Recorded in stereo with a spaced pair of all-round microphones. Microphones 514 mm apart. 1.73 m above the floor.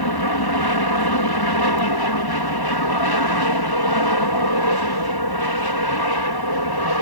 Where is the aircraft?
45° left (ahead or behind).